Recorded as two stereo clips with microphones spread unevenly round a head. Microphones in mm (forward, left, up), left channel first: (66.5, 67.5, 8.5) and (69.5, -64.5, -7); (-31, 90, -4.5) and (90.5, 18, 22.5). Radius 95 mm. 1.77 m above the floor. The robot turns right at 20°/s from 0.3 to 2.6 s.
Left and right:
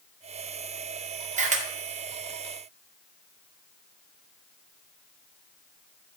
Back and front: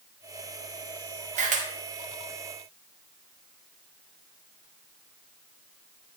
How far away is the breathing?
No breathing in this recording.